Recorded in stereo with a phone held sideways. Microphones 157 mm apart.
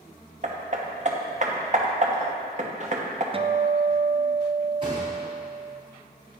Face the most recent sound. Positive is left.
turn(degrees=-35)  # may be behind; listen again after turning